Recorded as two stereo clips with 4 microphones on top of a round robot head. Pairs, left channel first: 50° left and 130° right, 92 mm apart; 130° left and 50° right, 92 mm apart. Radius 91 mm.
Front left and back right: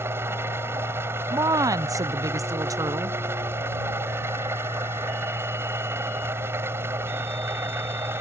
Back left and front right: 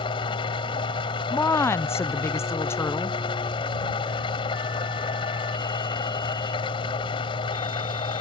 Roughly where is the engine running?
Behind.